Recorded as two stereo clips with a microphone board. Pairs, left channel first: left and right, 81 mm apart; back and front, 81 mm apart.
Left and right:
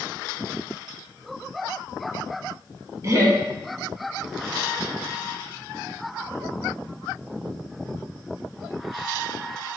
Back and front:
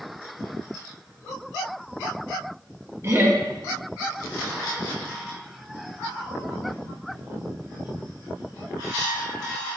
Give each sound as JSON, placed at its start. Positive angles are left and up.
{"t": 3.0, "sound": "laughter", "azimuth_deg": -50, "distance_m": 1.0}